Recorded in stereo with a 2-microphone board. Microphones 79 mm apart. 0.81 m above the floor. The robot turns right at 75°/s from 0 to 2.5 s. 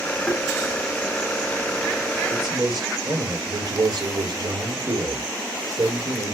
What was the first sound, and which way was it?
Tapping, 10° left (ahead or behind).